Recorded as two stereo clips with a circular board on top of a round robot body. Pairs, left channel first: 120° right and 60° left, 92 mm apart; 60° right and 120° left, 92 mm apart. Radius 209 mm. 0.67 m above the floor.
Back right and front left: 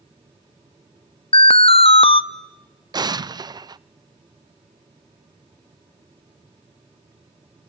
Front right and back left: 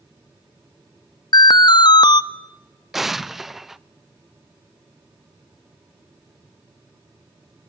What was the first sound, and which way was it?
An alarm, 100° right.